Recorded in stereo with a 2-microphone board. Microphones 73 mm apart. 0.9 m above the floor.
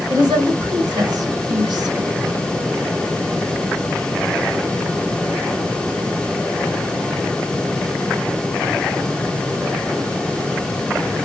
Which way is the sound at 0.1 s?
75° right (ahead or behind).